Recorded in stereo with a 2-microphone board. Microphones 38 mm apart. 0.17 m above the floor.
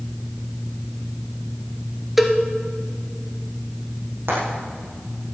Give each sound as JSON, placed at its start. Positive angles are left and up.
{"t": 2.2, "sound": "a cowbell", "side_deg": -5, "distance_m": 1.3}
{"t": 4.3, "sound": "frying", "side_deg": -65, "distance_m": 6.5}